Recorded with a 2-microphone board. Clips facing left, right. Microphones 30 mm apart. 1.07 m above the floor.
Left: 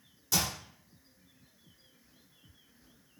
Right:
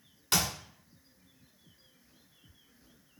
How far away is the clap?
About 2.5 m.